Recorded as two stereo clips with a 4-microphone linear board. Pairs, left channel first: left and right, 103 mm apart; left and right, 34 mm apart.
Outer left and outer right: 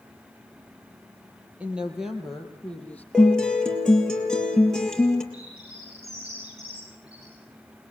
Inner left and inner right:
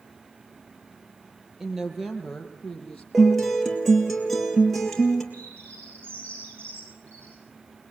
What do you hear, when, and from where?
1.6 s a woman speaking: 15° right (ahead or behind), 4 m; by 3.0 s 15° left (ahead or behind), 4 m
3.1 s a guitar: 5° left (ahead or behind), 4 m
5.3 s a bird: 75° right (ahead or behind), 6 m